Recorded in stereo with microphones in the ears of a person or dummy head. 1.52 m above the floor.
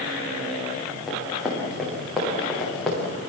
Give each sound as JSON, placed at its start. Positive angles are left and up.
{"t": 1.1, "sound": "running footsteps", "side_deg": -5, "distance_m": 8.5}